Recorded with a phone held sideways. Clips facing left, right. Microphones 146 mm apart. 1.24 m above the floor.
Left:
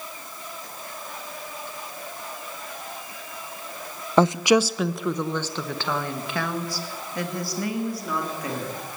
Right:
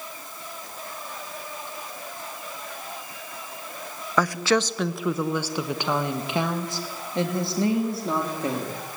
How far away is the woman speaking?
About 0.8 m.